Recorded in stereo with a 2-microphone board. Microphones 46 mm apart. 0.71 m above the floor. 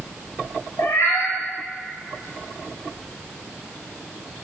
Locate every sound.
0.8 s a cat meowing: 80° left, 0.5 m